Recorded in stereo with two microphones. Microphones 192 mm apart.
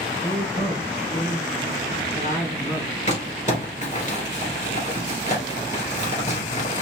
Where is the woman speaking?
55° left (ahead or behind), 2.5 m; by 3.0 s 35° left (ahead or behind), 2.5 m.